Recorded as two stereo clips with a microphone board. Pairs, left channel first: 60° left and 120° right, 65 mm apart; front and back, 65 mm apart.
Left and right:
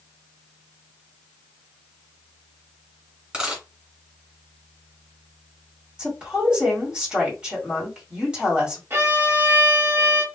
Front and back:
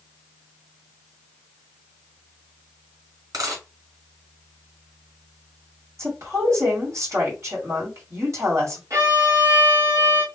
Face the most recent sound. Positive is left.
turn(degrees=-160)